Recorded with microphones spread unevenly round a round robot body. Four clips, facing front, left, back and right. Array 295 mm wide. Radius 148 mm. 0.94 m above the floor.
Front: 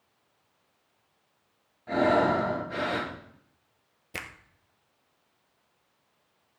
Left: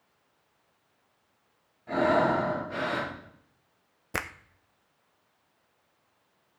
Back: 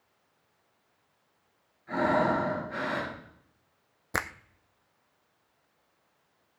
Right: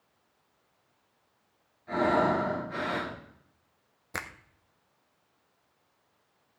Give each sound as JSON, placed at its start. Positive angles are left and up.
{"t": 1.9, "sound": "breathing", "azimuth_deg": 25, "distance_m": 6.0}
{"t": 4.1, "sound": "a finger snap", "azimuth_deg": 145, "distance_m": 0.7}